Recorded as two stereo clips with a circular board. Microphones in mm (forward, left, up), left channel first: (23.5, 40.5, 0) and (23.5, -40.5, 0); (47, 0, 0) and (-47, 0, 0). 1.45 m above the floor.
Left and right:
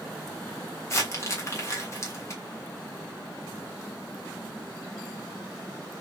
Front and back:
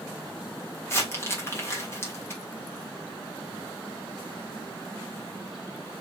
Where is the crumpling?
50° left, 1.4 m.